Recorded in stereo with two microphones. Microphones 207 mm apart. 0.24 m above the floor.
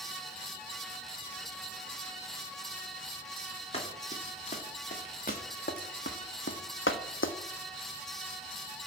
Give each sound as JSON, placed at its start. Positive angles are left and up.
{"t": 3.7, "sound": "running footsteps", "side_deg": 30, "distance_m": 2.5}